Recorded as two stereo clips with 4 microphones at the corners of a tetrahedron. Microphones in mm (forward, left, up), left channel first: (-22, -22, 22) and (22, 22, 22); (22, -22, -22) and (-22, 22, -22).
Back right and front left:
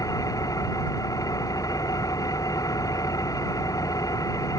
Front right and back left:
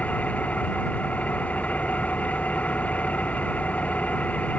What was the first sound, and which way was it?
An engine running, 110° right.